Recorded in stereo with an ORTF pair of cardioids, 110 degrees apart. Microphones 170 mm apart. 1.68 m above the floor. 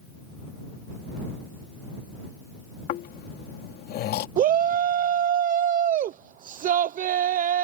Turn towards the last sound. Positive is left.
turn(degrees=-50)